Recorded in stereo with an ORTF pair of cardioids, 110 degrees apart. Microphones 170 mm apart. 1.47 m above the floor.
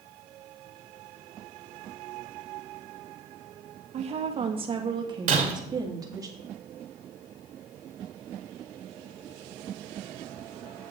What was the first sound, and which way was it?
A woman speaking, 40° right.